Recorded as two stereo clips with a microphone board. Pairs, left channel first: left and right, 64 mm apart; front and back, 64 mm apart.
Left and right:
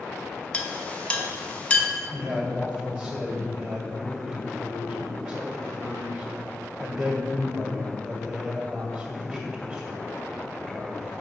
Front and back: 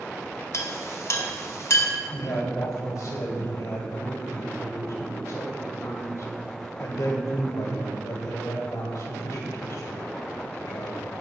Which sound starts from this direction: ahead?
A man speaking, at 2.1 s.